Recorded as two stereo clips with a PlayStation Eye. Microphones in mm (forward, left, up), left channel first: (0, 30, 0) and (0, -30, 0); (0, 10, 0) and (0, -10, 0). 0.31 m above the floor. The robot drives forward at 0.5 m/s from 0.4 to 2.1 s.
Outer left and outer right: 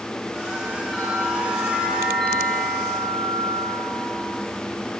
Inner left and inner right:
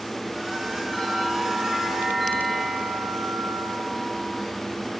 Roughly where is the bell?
Centre.